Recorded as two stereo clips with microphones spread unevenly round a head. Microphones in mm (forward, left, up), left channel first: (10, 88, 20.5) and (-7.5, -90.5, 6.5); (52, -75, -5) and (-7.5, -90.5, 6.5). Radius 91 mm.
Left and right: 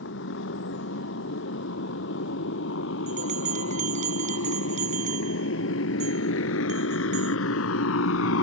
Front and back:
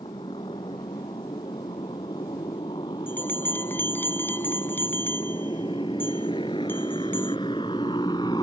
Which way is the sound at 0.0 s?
60° left.